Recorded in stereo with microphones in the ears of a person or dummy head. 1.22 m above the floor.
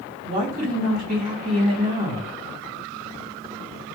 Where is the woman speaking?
50° right (ahead or behind), 2 m.